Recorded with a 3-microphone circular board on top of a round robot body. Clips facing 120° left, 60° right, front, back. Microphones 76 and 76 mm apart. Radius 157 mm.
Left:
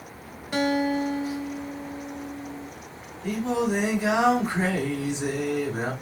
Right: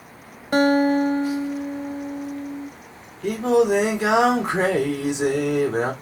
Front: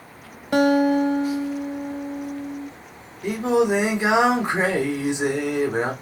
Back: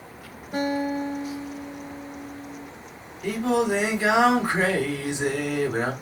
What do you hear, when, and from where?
0.5 s a guitar: 10° right, 1.0 m
3.2 s singing: 70° right, 3 m